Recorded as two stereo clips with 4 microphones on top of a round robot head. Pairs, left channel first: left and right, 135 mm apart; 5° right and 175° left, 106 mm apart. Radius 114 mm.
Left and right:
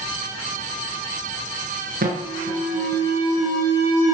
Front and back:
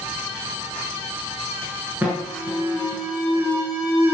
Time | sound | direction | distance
2.0 | an alarm | 105° right | 7 m